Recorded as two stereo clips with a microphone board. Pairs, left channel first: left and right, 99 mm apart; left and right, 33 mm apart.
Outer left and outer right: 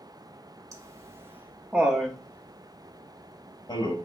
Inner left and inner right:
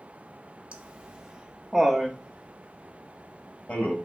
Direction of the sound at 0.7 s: 35° right (ahead or behind).